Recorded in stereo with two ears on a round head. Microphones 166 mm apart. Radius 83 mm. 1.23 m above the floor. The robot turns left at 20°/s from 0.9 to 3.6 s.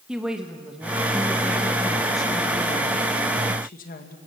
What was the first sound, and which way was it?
A woman speaking, 175° right.